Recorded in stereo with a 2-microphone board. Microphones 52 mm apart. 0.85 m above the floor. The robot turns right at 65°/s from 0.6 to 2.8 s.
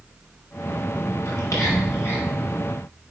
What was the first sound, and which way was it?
Whispering, 80° left.